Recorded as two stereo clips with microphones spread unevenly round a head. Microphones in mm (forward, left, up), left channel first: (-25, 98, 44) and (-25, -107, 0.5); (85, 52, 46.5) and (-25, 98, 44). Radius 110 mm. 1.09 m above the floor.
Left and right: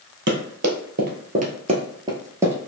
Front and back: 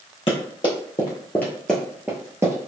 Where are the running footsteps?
55° right, 1.4 m; by 2.7 s 165° left, 1.1 m.